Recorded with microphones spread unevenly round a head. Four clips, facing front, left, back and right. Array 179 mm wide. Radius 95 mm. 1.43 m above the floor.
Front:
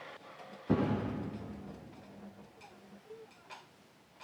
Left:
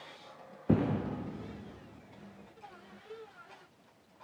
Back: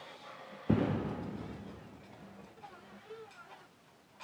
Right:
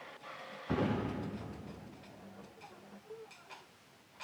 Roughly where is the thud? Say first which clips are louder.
Left 4 dB, even; left.